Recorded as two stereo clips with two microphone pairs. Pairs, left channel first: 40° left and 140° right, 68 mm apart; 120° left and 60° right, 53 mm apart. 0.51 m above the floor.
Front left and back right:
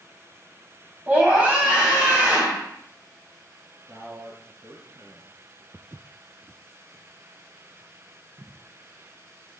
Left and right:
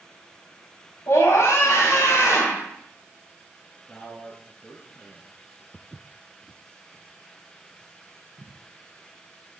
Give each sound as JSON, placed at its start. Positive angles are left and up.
{"t": 1.1, "sound": "a scream", "azimuth_deg": 145, "distance_m": 3.5}
{"t": 3.9, "sound": "a man speaking", "azimuth_deg": -170, "distance_m": 10.0}
{"t": 5.7, "sound": "footsteps", "azimuth_deg": -155, "distance_m": 0.7}